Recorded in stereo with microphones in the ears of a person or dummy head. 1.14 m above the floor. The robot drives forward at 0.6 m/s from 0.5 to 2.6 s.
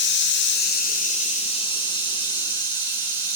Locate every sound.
0.0 s running water: 55° left (ahead or behind), 0.7 m; by 3.4 s 20° left (ahead or behind), 1.7 m